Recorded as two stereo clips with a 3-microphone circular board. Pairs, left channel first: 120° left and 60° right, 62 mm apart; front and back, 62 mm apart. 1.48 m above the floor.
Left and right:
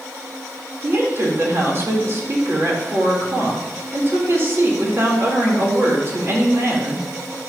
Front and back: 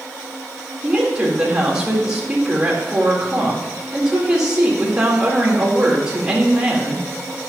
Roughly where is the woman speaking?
Right.